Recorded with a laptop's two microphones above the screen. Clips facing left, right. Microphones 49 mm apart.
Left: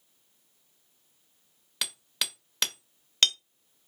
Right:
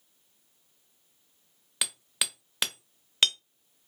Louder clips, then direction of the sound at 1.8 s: Even; 10° right (ahead or behind).